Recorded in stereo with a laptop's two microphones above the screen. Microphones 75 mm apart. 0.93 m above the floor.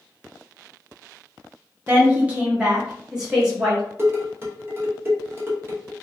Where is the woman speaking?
25° right (ahead or behind), 0.7 m; by 3.8 s 5° right (ahead or behind), 1.5 m.